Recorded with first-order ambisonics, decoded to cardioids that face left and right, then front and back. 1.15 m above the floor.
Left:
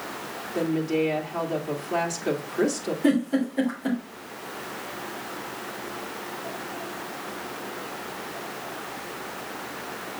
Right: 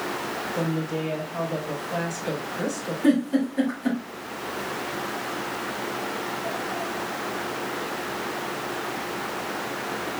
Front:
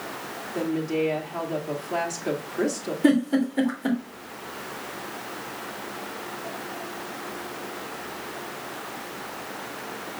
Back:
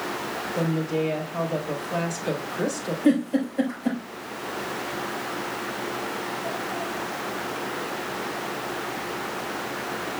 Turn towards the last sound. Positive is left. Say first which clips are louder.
# right 2 dB, front 1 dB
turn(degrees=10)